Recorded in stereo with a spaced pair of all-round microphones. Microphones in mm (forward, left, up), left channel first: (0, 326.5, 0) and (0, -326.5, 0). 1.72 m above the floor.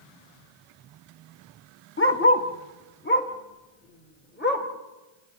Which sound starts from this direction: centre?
A dog barking, at 2.0 s.